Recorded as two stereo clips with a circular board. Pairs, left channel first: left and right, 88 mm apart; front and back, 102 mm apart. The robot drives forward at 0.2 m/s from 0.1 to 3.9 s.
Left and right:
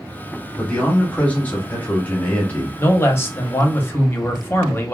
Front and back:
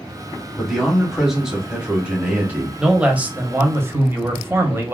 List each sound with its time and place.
0.6 s a man speaking: 80° left, 1.1 m; by 2.7 s 135° left, 1.2 m
2.8 s a man speaking: 105° left, 0.7 m; by 5.0 s 135° left, 0.8 m